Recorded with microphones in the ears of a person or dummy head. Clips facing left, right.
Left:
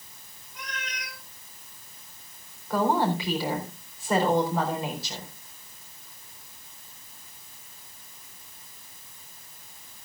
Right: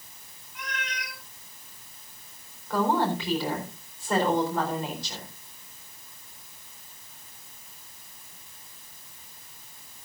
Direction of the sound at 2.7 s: Centre (ahead or behind).